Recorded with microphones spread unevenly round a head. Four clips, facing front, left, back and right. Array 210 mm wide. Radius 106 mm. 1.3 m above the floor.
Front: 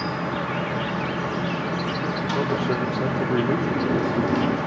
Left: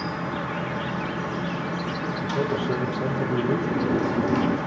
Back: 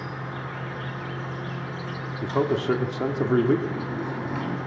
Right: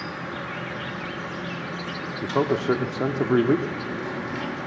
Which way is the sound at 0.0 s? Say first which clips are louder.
Left 4 dB, front 8 dB; 10° right.